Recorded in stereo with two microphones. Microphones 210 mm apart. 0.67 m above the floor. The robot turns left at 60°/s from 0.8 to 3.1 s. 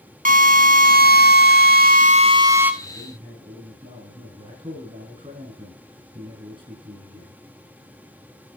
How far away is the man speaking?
About 5 m.